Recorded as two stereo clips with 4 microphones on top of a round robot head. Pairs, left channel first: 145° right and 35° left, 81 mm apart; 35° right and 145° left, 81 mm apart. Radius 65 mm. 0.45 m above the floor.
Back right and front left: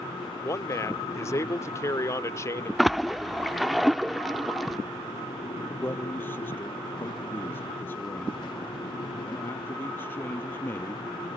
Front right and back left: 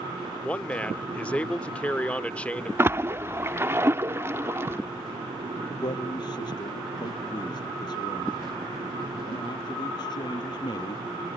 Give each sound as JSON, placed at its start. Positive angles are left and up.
{"t": 0.4, "sound": "a man speaking", "azimuth_deg": -105}
{"t": 2.8, "sound": "a splash", "azimuth_deg": 125}
{"t": 5.7, "sound": "a man speaking", "azimuth_deg": -75}